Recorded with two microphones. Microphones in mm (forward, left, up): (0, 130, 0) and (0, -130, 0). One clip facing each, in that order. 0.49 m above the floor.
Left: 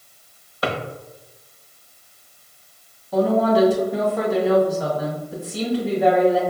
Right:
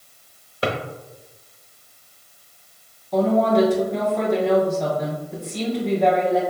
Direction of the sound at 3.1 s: 5° left (ahead or behind).